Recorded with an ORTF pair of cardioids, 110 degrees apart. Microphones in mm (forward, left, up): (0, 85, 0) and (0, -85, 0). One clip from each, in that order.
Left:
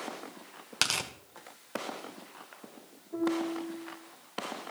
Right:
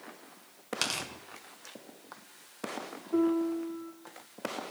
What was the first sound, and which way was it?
Tearing paper, 25° left.